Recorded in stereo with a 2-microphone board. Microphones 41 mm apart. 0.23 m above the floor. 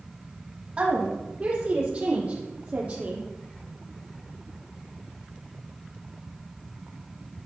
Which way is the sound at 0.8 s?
35° right (ahead or behind).